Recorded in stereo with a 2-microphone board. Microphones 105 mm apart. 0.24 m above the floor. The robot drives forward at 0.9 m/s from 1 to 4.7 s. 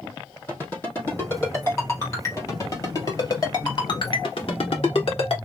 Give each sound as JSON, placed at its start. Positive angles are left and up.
{"t": 0.5, "sound": "a ringtone", "side_deg": 20, "distance_m": 4.0}